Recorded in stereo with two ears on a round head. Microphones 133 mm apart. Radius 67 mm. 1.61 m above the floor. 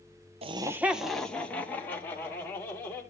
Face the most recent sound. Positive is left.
turn(degrees=15)  # may be behind; listen again after turning